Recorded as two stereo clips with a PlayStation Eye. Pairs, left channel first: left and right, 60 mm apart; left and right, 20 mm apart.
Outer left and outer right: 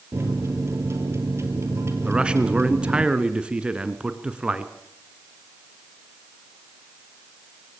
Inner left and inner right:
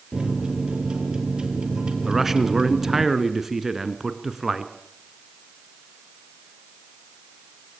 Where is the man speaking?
15° right (ahead or behind), 1.8 m.